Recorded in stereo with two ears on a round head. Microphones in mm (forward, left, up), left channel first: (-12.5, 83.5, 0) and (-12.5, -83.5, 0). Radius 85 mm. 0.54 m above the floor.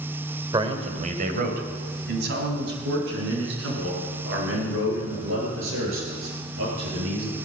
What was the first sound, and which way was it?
A man speaking, 25° right (ahead or behind).